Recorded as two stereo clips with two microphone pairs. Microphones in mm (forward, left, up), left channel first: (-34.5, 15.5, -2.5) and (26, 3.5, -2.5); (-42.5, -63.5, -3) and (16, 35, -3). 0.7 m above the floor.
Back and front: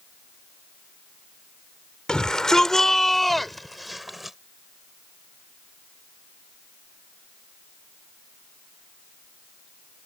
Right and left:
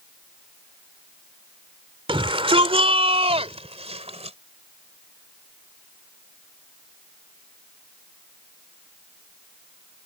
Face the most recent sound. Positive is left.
turn(degrees=75)